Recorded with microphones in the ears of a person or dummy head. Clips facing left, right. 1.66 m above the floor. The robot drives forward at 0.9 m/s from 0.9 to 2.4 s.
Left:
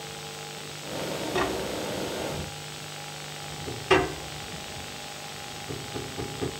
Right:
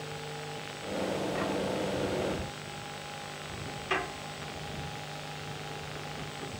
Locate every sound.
1.3 s tapping: 75° left (ahead or behind); by 6.5 s 60° left (ahead or behind)